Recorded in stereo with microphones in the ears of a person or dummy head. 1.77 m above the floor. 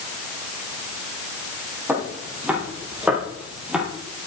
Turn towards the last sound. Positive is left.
turn(degrees=-5)  # may be behind; listen again after turning